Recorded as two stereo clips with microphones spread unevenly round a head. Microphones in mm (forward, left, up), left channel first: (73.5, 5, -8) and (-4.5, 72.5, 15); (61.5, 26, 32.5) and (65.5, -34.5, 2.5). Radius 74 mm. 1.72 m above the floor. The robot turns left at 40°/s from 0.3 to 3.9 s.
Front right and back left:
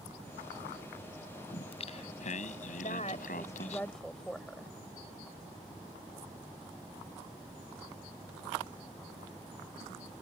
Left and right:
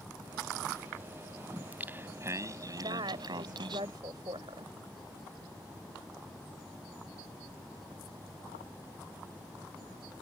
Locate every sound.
1.5 s singing: 5° right; by 3.8 s 95° right
2.8 s a woman speaking: 85° right; by 4.8 s 130° right